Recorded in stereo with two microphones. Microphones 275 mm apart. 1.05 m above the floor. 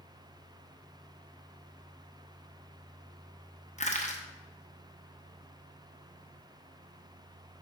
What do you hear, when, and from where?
3.8 s crushing: 25° left (ahead or behind), 0.8 m